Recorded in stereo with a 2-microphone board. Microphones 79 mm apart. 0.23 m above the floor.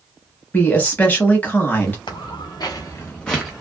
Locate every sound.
0.5 s a woman speaking: 20° left (ahead or behind), 1.1 m
2.1 s footsteps: 80° left, 1.3 m; by 3.5 s 5° right (ahead or behind), 1.1 m